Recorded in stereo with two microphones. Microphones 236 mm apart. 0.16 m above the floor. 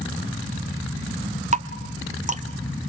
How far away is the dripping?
About 1.1 m.